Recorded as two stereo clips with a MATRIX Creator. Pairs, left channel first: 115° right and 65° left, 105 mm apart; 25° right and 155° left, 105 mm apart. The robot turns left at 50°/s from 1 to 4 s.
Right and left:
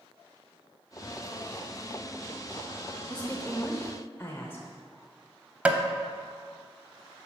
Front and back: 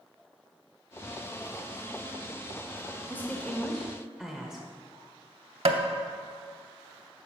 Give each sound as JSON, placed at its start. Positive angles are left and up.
{"t": 3.1, "sound": "a woman speaking", "azimuth_deg": -55, "distance_m": 0.8}
{"t": 5.7, "sound": "tapping", "azimuth_deg": 145, "distance_m": 0.6}